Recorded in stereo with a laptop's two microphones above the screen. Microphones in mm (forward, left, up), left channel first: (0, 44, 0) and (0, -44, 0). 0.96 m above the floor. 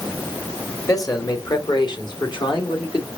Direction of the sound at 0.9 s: 40° left (ahead or behind).